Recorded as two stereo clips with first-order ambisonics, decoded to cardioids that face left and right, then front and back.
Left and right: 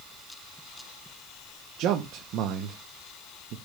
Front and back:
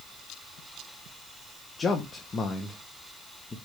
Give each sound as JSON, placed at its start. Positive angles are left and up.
{"t": 1.8, "sound": "a man speaking", "azimuth_deg": -70, "distance_m": 0.8}